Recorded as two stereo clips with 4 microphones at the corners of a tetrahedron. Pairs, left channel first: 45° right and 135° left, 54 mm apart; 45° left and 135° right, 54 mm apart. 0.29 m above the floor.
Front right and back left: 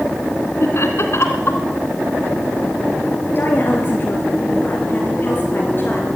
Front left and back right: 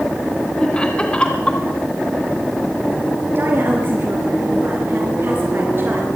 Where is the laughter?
25° right, 2.5 m.